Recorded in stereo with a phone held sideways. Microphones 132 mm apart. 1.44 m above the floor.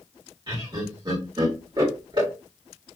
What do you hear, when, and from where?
0.5 s laughter: 35° right (ahead or behind), 2.0 m